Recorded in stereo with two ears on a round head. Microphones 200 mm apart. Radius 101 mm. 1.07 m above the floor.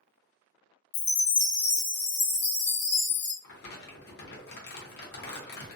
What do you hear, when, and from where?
0.9 s a chime: 50° left (ahead or behind), 0.9 m
3.4 s crumpling: 45° left (ahead or behind), 0.8 m